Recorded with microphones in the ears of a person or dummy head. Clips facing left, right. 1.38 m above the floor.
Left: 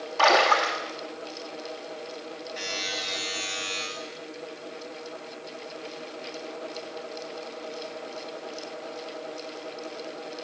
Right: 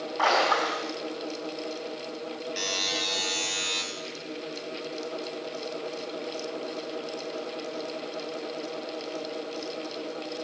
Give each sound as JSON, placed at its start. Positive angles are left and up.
{"t": 0.2, "sound": "a splash", "side_deg": 40, "distance_m": 1.8}
{"t": 2.6, "sound": "a buzzer", "side_deg": -60, "distance_m": 3.5}